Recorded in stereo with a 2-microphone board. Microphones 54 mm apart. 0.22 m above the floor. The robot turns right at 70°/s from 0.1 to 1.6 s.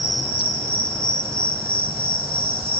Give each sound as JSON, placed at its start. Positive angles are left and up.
{"t": 0.0, "sound": "an insect", "azimuth_deg": -160, "distance_m": 1.6}